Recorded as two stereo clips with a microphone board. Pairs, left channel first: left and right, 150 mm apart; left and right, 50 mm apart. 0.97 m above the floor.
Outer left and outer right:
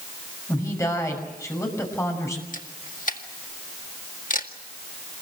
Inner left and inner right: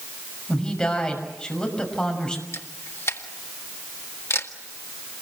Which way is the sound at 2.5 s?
60° left (ahead or behind).